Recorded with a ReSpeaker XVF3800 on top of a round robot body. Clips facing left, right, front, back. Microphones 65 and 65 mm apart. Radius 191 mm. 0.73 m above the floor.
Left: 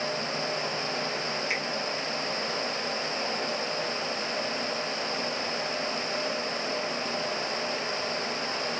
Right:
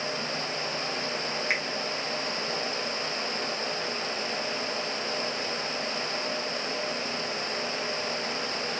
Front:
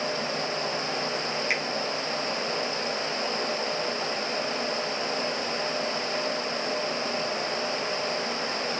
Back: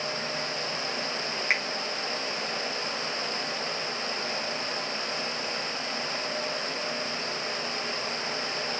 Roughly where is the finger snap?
Behind right.